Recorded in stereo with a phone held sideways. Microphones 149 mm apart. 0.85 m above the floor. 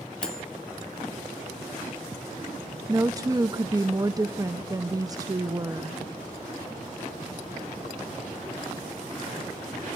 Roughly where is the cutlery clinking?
Centre.